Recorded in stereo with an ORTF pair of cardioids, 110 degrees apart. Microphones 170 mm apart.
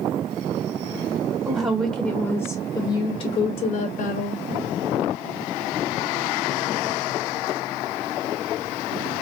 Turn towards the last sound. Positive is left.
turn(degrees=70)